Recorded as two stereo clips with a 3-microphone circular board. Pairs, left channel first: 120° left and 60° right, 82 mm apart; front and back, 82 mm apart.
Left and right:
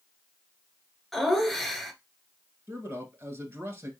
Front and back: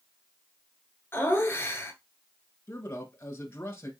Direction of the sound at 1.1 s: 35° left.